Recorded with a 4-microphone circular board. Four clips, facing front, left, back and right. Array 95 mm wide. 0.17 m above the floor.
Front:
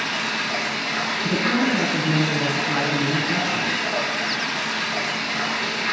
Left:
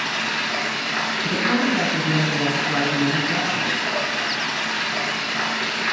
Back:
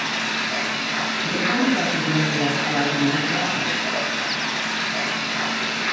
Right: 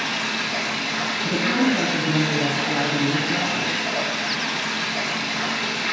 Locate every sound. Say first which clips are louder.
0.0 s running water: left 1 dB, even; 100° left, 1.3 m
1.2 s a woman speaking: right 1 dB, even; 45° left, 1.3 m